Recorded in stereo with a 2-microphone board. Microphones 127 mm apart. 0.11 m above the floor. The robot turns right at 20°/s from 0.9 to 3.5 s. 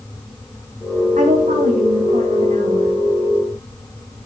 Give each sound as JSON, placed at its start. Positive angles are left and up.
{"t": 1.2, "sound": "a woman speaking", "azimuth_deg": -95, "distance_m": 7.5}